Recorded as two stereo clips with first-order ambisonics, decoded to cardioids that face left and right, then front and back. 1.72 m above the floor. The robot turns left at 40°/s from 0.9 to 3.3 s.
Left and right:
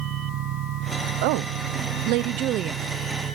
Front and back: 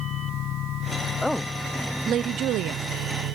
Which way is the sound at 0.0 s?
50° right.